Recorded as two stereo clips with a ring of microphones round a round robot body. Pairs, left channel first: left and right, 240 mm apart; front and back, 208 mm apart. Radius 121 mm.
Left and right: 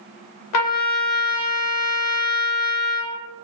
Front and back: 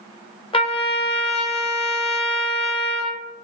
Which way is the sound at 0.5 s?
65° left.